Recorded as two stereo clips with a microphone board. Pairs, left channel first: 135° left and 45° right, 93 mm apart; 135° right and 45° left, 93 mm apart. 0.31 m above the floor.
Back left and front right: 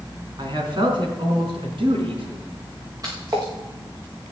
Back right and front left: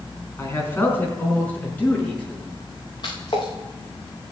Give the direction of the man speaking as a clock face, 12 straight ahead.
2 o'clock.